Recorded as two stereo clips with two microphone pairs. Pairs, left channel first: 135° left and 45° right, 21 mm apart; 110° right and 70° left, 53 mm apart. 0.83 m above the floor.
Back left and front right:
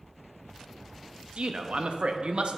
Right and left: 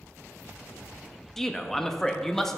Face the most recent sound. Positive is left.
turn(degrees=-25)